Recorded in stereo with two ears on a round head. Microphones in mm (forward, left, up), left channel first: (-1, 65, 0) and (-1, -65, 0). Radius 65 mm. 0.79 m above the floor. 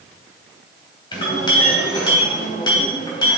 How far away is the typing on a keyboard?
No typing on a keyboard in this recording.